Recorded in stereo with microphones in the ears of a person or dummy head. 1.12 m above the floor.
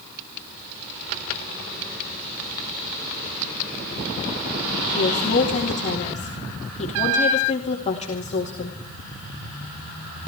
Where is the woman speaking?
40° left (ahead or behind), 2 m.